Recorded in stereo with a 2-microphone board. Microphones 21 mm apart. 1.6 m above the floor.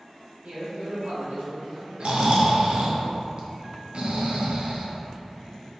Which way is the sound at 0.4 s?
65° right (ahead or behind).